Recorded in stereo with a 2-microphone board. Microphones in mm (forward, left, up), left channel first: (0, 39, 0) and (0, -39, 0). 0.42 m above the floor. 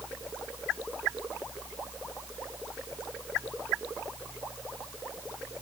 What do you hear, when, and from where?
Only background noise.